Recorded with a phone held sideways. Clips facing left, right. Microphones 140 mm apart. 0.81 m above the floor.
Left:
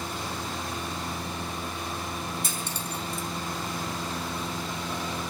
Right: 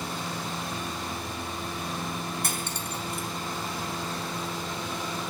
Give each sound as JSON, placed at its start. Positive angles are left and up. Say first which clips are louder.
{"t": 2.4, "sound": "cutlery clinking", "louder": "right 1 dB", "side_deg": -65, "distance_m": 4.0}